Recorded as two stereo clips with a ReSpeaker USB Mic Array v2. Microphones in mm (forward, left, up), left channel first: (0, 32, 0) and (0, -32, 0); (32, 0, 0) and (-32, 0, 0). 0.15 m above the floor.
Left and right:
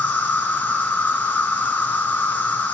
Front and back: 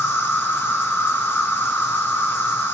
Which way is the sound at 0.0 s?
40° left.